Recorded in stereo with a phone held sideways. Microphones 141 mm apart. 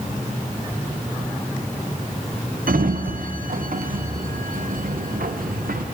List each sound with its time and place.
2.7 s a sliding door: 85° right, 0.5 m